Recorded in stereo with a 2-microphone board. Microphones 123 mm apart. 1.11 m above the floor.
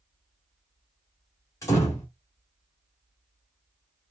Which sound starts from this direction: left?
A door slam, at 1.6 s.